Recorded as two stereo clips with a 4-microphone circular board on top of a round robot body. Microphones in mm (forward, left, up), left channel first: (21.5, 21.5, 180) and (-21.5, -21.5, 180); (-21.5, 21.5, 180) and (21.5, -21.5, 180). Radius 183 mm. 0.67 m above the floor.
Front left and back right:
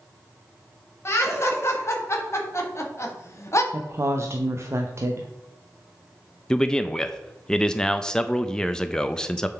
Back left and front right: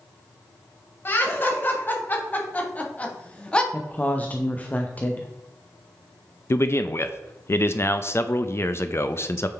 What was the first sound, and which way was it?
Laughter, 85° left.